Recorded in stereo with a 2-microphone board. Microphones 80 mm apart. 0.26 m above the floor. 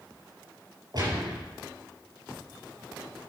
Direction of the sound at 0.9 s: 55° right (ahead or behind).